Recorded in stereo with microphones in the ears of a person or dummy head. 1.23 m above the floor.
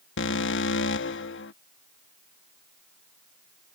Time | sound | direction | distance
0.2 | an alarm | 55° left (ahead or behind) | ?